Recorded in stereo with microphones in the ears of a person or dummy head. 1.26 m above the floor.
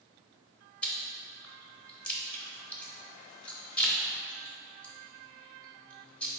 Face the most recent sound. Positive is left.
turn(degrees=10)  # may be behind; listen again after turning